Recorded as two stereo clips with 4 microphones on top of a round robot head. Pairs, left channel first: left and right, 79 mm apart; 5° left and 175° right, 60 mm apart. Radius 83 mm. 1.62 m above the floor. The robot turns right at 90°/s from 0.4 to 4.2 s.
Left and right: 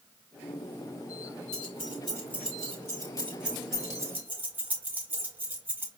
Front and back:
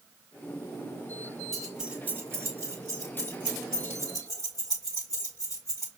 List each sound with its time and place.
1.5 s keys jangling: 85° left, 0.7 m; by 5.9 s 30° right, 0.7 m